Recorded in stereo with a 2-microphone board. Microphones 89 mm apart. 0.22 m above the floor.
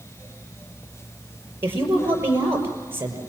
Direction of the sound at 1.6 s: 25° right (ahead or behind).